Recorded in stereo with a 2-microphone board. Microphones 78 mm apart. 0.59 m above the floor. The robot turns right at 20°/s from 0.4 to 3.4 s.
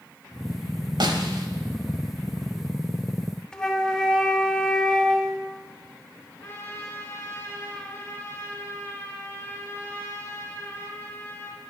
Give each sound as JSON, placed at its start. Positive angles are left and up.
{"t": 1.0, "sound": "a snare drum", "side_deg": -70, "distance_m": 1.1}
{"t": 3.5, "sound": "a flute", "side_deg": 10, "distance_m": 0.8}
{"t": 6.4, "sound": "a trumpet", "side_deg": 35, "distance_m": 3.0}